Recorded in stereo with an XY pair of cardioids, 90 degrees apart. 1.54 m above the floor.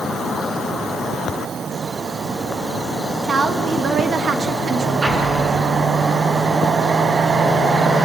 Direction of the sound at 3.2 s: 50° right.